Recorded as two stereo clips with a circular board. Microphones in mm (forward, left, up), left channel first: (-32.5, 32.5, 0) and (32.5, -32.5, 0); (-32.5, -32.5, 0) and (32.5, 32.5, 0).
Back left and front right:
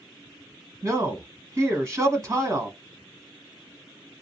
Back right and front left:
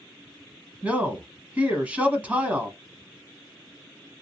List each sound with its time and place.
0.8 s a man speaking: 15° right, 1.2 m